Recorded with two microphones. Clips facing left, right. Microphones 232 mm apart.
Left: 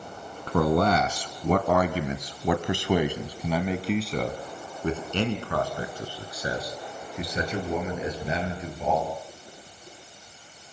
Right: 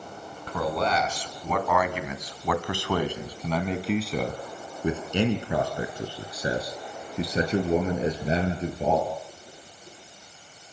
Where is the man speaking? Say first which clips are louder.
Left 5 dB; 60° left (ahead or behind), 2.5 m; by 9.2 s 35° right (ahead or behind), 5.5 m.